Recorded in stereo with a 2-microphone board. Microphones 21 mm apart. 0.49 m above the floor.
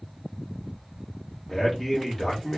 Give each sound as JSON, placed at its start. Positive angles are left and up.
{"t": 1.5, "sound": "a man speaking", "side_deg": 10, "distance_m": 1.0}